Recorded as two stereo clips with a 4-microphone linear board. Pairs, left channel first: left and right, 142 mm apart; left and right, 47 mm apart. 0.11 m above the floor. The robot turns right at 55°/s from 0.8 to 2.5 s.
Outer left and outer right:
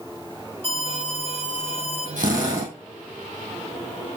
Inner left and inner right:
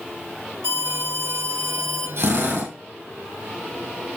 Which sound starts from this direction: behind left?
An alarm, at 0.6 s.